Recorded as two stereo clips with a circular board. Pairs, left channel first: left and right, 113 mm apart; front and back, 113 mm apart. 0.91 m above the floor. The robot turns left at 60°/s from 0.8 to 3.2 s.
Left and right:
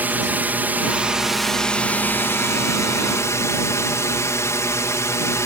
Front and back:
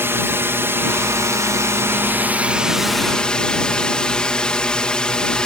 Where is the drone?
145° right; by 5.5 s 70° left.